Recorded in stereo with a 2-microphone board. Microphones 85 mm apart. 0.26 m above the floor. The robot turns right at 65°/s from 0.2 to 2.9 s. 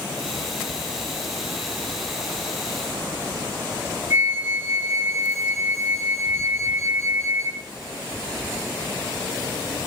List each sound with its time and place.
4.1 s a flute: 30° right (ahead or behind), 2.5 m